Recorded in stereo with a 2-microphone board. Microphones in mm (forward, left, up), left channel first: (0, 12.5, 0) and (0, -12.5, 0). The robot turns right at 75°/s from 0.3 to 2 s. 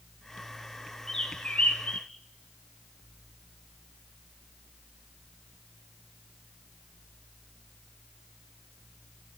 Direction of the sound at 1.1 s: 20° left (ahead or behind).